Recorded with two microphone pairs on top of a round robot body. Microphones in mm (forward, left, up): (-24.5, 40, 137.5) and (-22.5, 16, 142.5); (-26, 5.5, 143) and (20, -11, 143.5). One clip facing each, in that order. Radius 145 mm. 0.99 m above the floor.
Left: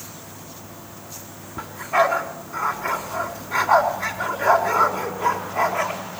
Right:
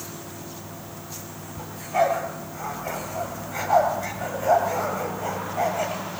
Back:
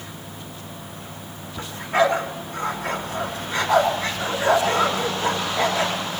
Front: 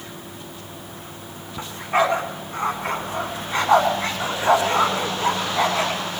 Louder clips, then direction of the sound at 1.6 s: Left 3 dB, back 1 dB; 45° left.